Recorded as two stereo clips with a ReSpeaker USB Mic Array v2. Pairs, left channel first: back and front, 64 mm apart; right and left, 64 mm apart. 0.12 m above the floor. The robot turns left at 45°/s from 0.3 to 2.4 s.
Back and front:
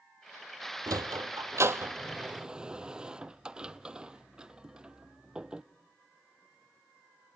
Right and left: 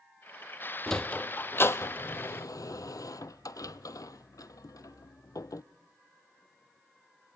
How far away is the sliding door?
About 0.7 m.